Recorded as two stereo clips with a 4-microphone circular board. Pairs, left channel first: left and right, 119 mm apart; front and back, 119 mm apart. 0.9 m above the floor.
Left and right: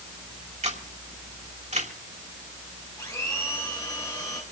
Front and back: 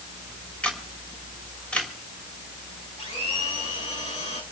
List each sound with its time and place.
0.6 s a camera shutter: 80° right, 3 m
3.0 s a blender: 30° left, 6 m